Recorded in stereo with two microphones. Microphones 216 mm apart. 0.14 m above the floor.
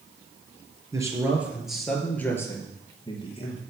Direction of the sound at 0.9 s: 15° right (ahead or behind).